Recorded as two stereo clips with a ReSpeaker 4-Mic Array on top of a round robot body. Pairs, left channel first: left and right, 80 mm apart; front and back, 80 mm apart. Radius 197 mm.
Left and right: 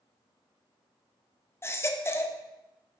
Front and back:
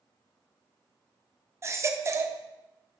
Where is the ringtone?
No ringtone in this recording.